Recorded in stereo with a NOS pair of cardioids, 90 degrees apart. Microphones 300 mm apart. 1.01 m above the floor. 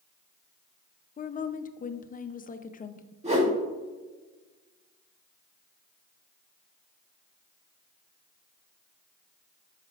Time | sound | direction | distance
1.2 | a woman speaking | 25° left | 0.6 m
3.2 | a whoosh | 20° right | 2.0 m